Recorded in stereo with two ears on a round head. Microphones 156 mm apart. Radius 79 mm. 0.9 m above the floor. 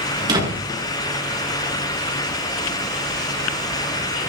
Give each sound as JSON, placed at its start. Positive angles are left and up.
{"t": 0.2, "sound": "a door slam", "side_deg": -25, "distance_m": 9.5}